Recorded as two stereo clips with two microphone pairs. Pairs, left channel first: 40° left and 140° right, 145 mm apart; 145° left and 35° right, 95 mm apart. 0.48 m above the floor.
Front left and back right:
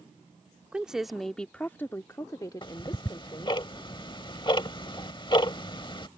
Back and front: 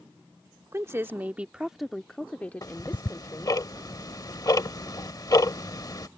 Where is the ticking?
95° left.